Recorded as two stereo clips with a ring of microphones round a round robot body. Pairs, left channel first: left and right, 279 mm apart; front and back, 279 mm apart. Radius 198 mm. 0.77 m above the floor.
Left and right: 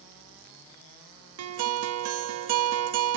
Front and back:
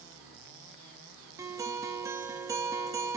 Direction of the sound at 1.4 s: 100° right.